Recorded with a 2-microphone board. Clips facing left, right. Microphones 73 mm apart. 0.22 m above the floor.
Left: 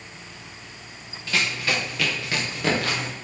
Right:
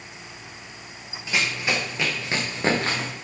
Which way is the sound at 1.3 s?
15° right (ahead or behind).